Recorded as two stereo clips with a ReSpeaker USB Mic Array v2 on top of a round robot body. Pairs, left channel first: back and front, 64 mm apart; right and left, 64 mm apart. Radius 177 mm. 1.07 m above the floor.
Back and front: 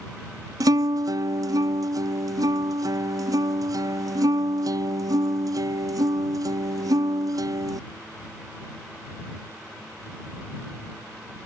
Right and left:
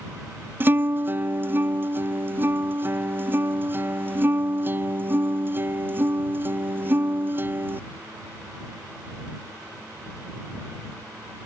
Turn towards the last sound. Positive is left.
turn(degrees=30)